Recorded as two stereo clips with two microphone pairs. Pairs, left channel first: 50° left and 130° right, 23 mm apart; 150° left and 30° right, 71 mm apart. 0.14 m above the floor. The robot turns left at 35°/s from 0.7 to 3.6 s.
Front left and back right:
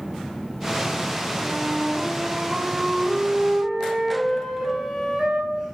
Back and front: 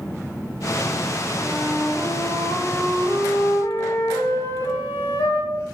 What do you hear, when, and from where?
1.4 s a flute: 120° right, 4.5 m; by 5.7 s 165° left, 4.5 m